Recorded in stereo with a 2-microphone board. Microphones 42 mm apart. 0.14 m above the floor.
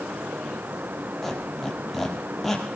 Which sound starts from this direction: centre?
A squeak, at 1.2 s.